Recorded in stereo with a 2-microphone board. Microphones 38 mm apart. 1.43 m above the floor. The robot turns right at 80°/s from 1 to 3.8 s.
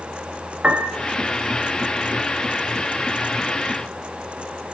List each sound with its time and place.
0.6 s a piano: 35° right (ahead or behind), 1.0 m